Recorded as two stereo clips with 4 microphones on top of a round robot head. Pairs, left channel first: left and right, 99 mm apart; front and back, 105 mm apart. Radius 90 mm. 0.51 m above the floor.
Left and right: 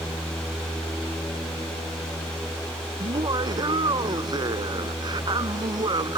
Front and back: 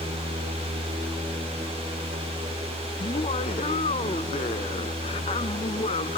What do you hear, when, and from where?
3.0 s laughter: 45° right